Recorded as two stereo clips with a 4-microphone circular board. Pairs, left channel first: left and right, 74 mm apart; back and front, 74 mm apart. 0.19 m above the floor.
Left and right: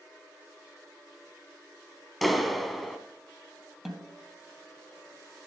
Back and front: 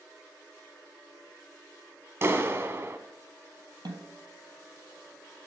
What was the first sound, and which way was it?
A clap, straight ahead.